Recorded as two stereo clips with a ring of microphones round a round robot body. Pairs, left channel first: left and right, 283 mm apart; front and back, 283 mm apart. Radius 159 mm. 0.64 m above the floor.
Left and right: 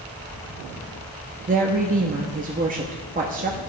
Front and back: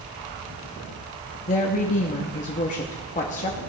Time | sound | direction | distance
1.5 | a woman speaking | 45° right | 0.9 m